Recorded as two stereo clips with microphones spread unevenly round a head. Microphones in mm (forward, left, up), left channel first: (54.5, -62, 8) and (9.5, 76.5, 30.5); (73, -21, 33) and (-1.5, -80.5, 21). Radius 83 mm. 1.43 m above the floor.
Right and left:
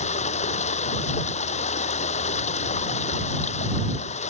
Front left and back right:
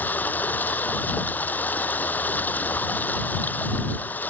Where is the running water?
30° right.